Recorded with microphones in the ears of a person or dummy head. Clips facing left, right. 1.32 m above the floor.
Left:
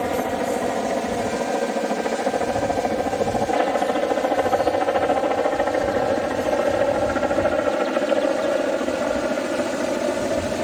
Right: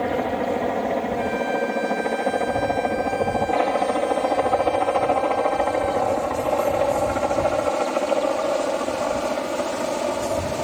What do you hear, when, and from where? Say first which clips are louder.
0.0 s a helicopter: even; 5° right (ahead or behind); by 10.6 s 20° left (ahead or behind)